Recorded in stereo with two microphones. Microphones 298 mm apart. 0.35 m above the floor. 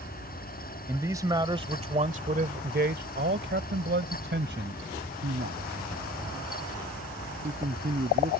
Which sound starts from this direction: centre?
A man speaking, at 0.9 s.